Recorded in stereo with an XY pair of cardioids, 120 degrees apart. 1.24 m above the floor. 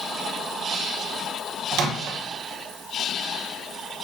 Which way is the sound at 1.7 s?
70° right.